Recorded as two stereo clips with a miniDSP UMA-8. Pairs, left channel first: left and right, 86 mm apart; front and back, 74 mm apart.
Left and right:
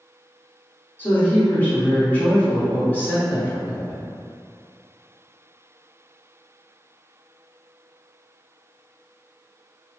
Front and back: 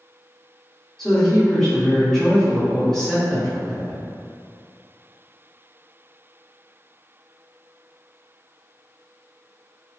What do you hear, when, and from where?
1.0 s a woman speaking: 70° left, 1.3 m